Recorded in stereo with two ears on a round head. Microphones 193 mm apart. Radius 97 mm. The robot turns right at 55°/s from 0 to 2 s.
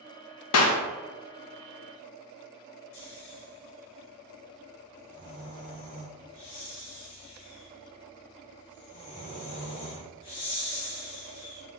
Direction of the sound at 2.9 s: 55° left (ahead or behind).